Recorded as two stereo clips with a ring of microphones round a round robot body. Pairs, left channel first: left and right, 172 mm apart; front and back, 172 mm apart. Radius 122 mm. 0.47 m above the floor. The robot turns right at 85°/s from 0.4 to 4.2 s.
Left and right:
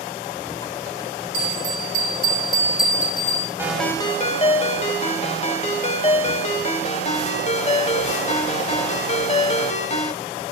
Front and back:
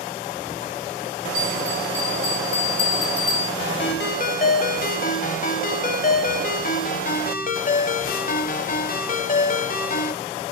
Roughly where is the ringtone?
Ahead.